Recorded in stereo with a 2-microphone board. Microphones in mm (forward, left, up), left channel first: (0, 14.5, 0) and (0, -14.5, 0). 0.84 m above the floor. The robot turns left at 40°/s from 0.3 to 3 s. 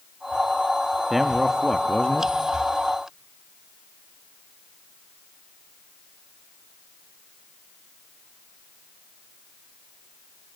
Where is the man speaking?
175° right, 1.1 m; by 2.3 s 140° left, 1.1 m.